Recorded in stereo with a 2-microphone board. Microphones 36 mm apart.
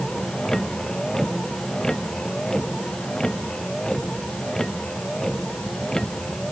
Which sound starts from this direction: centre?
A vehicle, at 0.0 s.